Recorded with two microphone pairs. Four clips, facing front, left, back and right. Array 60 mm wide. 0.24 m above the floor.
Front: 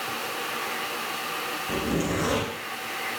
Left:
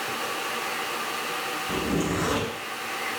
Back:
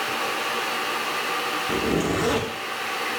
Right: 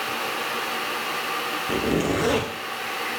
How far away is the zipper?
About 2 m.